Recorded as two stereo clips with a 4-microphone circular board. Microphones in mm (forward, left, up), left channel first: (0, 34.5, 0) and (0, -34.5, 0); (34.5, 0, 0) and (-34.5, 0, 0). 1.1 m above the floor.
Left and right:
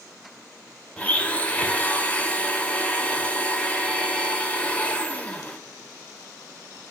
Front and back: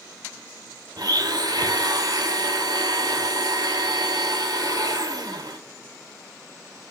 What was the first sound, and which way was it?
A blender, 160° left.